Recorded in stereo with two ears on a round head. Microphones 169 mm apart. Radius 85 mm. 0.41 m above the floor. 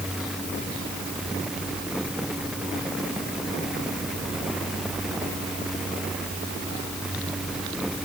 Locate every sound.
Only background noise.